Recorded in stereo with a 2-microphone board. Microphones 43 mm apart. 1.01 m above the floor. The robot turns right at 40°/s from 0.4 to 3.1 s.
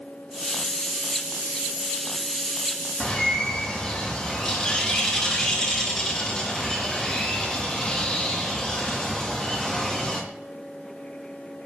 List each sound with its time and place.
3.0 s a bird: 20° left (ahead or behind), 0.6 m